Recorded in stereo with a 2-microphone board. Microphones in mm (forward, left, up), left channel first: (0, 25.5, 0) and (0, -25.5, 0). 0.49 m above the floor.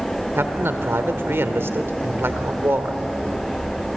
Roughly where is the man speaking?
Right.